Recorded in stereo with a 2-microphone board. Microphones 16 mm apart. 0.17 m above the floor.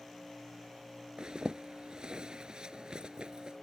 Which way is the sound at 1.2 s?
55° right (ahead or behind).